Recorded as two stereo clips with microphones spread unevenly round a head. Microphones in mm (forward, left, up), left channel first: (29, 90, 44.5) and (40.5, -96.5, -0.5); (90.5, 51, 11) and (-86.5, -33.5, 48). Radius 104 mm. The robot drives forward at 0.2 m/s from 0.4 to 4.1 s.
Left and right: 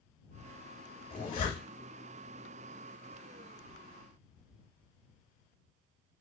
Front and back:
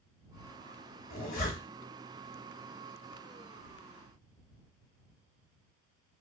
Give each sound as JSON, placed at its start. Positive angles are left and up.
{"t": 1.1, "sound": "a zipper", "azimuth_deg": 65, "distance_m": 1.2}